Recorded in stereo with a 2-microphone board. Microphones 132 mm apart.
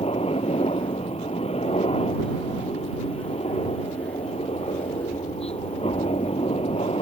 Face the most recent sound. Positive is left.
turn(degrees=50)  # may be behind; listen again after turning